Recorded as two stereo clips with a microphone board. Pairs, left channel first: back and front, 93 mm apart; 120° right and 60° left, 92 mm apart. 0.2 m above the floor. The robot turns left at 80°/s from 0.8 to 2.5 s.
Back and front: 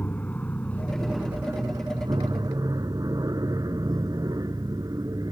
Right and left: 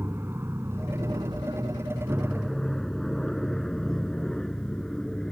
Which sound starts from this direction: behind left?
An aircraft, at 0.0 s.